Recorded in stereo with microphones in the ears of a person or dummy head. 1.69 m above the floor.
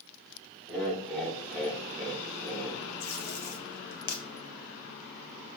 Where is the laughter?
5° left (ahead or behind), 1.8 m.